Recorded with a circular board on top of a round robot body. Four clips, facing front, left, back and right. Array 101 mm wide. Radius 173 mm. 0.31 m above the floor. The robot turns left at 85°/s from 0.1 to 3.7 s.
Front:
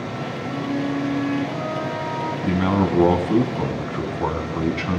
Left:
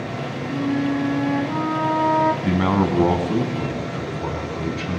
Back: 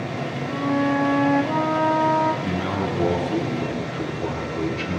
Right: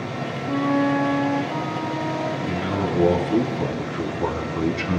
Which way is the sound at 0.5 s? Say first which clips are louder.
Right 2 dB, back 3 dB; 100° right.